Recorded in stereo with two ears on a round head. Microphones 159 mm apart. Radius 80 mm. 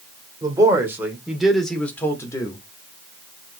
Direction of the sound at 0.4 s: 20° right (ahead or behind).